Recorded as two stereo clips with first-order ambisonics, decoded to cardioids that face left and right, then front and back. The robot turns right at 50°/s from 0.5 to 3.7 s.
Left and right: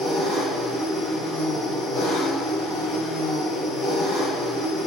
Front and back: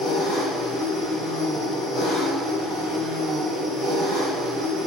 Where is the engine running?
30° right, 1.4 m; by 4.9 s 130° left, 1.4 m.